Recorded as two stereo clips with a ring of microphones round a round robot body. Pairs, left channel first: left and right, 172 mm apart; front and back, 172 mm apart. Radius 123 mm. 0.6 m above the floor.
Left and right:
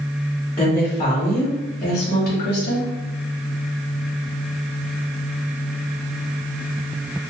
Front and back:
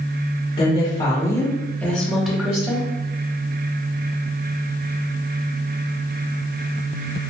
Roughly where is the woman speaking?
Ahead left.